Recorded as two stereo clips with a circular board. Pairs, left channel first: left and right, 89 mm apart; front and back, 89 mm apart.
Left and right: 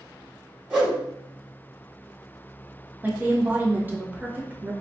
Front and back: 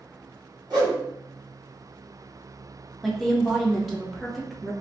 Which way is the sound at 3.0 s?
90° right.